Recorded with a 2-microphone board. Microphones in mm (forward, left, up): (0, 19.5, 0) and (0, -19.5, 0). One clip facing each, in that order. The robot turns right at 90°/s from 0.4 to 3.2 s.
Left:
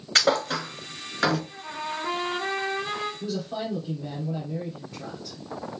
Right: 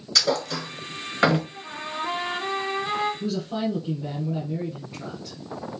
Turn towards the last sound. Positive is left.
turn(degrees=-20)  # may be behind; listen again after turning